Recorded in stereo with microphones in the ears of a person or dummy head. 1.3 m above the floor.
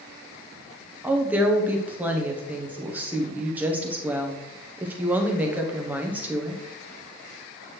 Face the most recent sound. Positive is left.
turn(degrees=-10)  # may be behind; listen again after turning